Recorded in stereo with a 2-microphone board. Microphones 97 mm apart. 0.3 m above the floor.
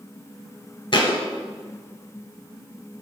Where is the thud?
60° left (ahead or behind), 0.6 m.